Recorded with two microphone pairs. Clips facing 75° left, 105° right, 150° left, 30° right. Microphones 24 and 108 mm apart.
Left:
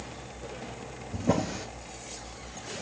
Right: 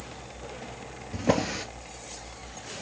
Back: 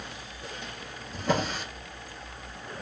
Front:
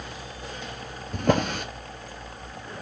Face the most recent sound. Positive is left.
turn(degrees=-60)